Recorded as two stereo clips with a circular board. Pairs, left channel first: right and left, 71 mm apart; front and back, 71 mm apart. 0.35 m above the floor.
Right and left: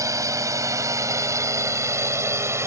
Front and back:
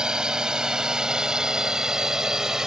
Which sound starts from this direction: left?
A drone, at 0.0 s.